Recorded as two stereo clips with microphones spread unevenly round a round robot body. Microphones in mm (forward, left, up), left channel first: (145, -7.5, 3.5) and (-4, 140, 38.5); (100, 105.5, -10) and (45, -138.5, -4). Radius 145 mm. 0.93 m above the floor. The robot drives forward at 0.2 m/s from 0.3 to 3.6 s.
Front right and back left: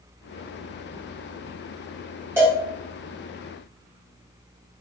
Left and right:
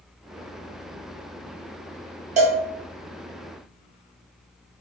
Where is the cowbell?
155° right, 0.5 m; by 2.6 s 160° right, 0.5 m.